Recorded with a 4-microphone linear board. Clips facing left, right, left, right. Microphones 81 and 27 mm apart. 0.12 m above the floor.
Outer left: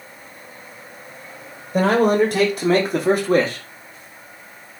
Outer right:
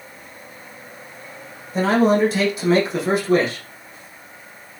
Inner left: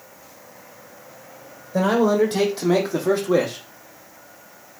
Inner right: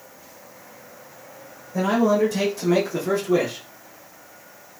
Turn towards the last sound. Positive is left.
turn(degrees=40)  # may be behind; listen again after turning